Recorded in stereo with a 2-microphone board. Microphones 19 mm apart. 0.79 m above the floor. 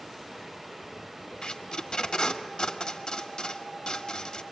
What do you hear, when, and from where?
1.4 s tape being pulled: 50° left (ahead or behind), 1.5 m